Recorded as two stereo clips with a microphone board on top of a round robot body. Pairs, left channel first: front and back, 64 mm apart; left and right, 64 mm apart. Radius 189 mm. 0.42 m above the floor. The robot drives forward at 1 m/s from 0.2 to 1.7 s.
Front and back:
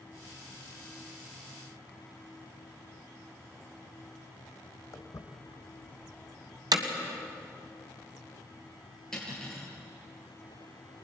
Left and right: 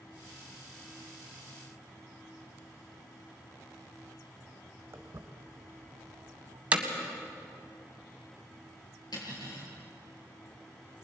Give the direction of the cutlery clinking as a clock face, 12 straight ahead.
9 o'clock.